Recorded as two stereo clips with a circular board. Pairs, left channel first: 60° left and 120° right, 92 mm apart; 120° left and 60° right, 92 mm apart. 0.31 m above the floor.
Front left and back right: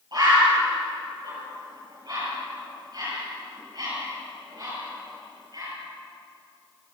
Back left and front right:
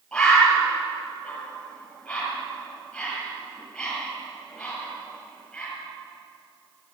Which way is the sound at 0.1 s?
160° right.